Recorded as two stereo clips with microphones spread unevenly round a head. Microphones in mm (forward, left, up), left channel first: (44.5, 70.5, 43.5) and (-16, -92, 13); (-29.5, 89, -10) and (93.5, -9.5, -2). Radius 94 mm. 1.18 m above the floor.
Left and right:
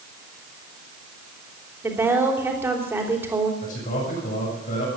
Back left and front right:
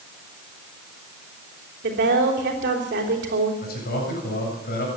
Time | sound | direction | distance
1.8 | a woman speaking | 30° right | 3 m
3.6 | a man speaking | 120° left | 7.5 m